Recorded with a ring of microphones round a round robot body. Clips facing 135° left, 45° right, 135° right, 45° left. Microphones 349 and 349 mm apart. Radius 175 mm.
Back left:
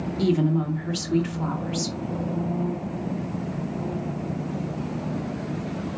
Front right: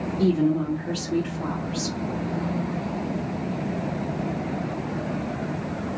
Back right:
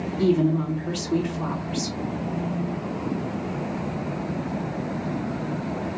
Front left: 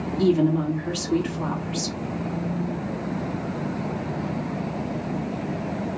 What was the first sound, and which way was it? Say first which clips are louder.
A woman speaking: front right 2 dB, front left 1 dB; 125° left.